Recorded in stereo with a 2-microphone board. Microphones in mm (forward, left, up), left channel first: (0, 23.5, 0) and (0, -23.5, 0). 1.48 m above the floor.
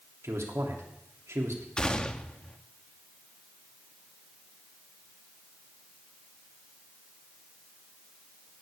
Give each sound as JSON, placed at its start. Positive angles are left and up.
{"t": 0.2, "sound": "a man speaking", "side_deg": -85, "distance_m": 3.0}
{"t": 1.8, "sound": "a gunshot", "side_deg": 20, "distance_m": 0.9}